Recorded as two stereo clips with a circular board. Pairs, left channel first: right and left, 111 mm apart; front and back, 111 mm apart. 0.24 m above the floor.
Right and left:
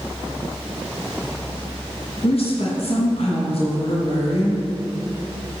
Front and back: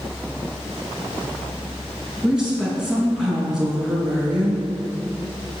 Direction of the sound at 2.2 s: 95° right.